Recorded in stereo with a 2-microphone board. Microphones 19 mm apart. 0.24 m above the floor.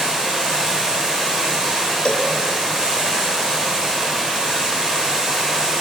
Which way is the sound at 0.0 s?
55° right (ahead or behind).